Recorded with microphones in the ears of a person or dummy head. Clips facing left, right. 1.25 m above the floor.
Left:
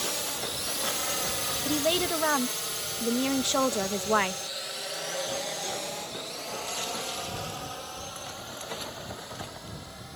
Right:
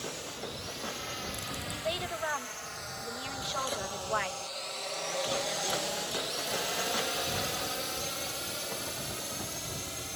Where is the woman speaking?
65° left (ahead or behind).